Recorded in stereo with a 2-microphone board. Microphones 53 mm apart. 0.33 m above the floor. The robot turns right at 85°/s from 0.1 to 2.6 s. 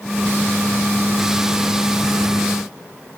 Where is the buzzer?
I don't hear a buzzer.